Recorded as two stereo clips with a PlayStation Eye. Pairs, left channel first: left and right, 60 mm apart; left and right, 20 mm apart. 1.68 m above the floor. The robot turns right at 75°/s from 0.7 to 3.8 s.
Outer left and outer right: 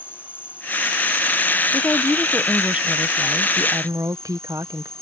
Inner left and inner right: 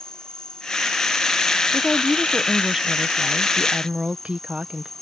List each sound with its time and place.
0.0 s an insect: 140° left; by 5.0 s 15° left
1.7 s a woman speaking: 125° left; by 4.9 s 80° right